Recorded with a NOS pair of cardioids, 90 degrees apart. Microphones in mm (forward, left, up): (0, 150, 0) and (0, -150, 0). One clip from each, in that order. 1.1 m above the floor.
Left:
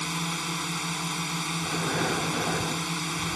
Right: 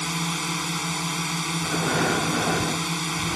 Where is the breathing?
35° right.